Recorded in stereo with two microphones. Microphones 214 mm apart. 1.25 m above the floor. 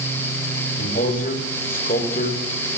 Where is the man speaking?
40° left (ahead or behind), 6.5 m.